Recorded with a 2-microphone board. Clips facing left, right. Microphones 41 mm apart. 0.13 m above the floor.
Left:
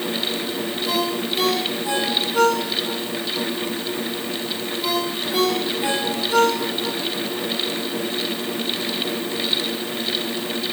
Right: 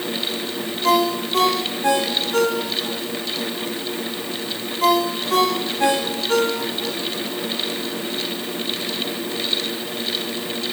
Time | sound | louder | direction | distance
0.8 | a ringtone | right 7 dB | 75° right (ahead or behind) | 5.5 m